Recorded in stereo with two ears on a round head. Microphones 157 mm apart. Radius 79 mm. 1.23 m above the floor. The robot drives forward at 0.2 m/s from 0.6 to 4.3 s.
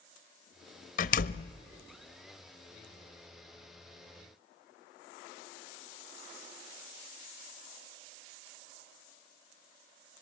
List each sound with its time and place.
1.0 s a door slam: 45° left (ahead or behind), 0.8 m; by 1.5 s 50° left (ahead or behind), 0.8 m